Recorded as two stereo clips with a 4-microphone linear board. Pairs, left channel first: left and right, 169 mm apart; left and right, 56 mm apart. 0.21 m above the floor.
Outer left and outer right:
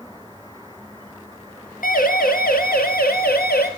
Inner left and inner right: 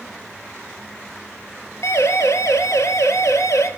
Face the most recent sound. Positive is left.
turn(degrees=75)  # may be behind; listen again after turning